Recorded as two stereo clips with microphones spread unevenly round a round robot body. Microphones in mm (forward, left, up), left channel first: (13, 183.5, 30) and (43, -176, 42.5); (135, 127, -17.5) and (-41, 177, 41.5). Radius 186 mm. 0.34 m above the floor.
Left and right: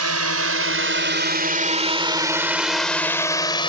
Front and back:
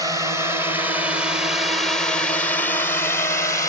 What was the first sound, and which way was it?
A drone, 105° right.